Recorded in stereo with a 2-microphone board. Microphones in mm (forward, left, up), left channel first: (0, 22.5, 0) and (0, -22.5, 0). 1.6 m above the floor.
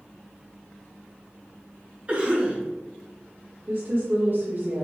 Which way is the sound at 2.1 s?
30° right (ahead or behind).